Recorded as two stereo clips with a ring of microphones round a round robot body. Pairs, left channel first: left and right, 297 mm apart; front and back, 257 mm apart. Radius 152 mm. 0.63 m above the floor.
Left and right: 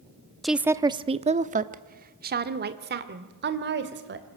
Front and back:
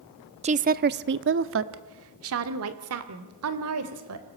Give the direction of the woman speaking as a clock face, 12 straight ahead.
6 o'clock.